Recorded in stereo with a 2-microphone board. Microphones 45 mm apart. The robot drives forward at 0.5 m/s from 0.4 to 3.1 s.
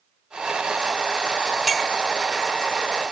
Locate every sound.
1.7 s a clink: 5° right (ahead or behind), 1.5 m